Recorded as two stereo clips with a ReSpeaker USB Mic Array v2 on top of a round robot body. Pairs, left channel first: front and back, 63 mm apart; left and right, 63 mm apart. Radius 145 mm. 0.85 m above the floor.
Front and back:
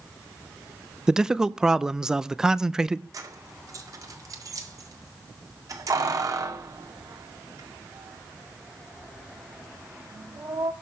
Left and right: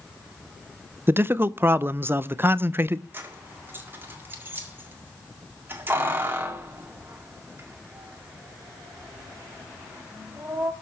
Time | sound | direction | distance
1.1 | a man speaking | 105° right | 0.7 m
3.1 | keys jangling | 150° right | 2.0 m